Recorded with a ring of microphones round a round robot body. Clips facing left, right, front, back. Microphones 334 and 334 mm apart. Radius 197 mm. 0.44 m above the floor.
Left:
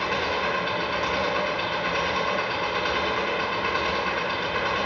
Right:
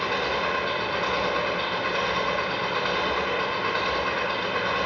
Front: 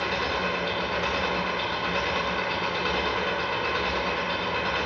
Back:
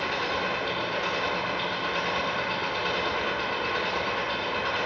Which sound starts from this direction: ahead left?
An engine running, at 0.0 s.